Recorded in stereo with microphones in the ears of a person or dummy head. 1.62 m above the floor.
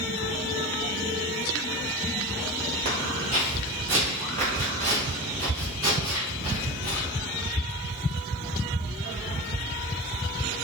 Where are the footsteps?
30° right (ahead or behind), 1.8 m; by 7.1 s 35° right (ahead or behind), 3 m.